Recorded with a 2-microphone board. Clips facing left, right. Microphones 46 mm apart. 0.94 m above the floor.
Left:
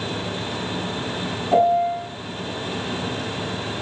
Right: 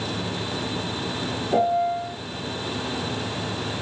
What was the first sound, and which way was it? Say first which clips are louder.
A piano: left 4 dB; 40° left (ahead or behind).